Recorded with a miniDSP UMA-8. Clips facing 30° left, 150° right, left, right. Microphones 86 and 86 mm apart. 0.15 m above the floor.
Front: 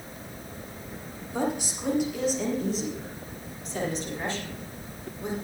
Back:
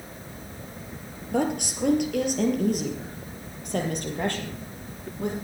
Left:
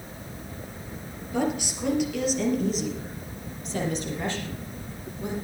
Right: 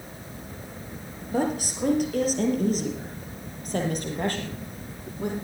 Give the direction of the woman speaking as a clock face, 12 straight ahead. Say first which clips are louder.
Back 3 dB, right 1 dB; 5 o'clock.